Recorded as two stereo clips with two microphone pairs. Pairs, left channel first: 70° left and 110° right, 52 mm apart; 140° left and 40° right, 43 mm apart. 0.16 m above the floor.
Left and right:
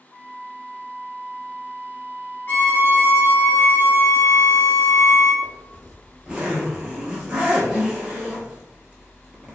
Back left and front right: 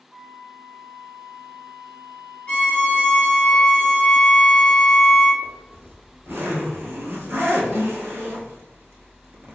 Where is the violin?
95° left, 1.2 m.